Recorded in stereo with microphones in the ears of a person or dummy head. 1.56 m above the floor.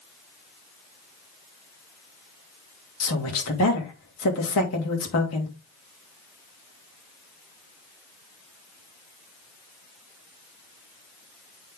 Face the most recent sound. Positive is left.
turn(degrees=70)  # may be behind; listen again after turning